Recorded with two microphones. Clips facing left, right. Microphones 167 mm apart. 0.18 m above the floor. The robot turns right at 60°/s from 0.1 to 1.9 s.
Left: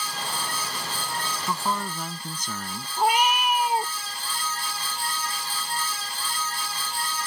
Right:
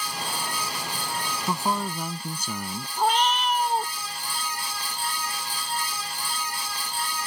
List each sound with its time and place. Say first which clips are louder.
1.5 s a man speaking: right 2 dB; 20° right (ahead or behind); by 2.9 s 10° right (ahead or behind)
3.0 s a cat meowing: left 1 dB; 10° left (ahead or behind)